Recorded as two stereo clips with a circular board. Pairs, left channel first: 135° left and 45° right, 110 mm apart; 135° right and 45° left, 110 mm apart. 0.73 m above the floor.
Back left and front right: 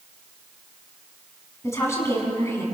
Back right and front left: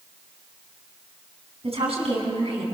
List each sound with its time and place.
1.6 s a woman speaking: 70° left, 5 m